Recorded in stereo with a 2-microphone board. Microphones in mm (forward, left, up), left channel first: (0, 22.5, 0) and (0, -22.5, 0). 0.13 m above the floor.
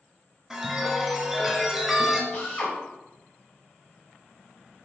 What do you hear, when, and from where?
0.5 s a chime: 5° right (ahead or behind), 0.9 m
2.3 s a drill: 40° left (ahead or behind), 1.9 m